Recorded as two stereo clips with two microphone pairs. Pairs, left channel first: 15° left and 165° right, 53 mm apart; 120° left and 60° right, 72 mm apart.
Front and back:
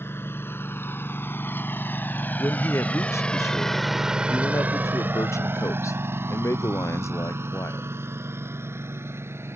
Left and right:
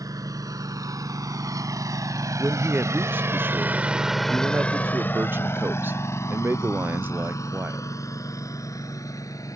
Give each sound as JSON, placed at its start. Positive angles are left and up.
{"t": 0.0, "sound": "a lawn mower", "azimuth_deg": -25}
{"t": 2.4, "sound": "a man speaking", "azimuth_deg": 0}